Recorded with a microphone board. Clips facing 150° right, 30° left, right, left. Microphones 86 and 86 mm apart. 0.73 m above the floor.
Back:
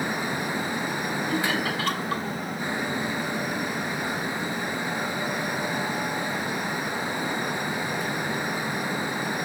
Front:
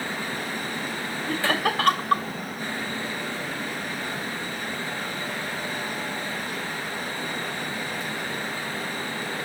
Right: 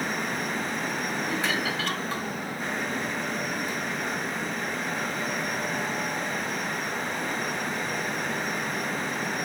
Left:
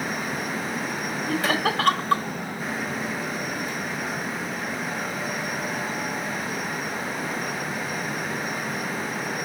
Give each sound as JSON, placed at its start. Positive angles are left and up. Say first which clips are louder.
{"t": 1.3, "sound": "laughter", "louder": "front 4 dB, left 8 dB", "azimuth_deg": 60, "distance_m": 1.7}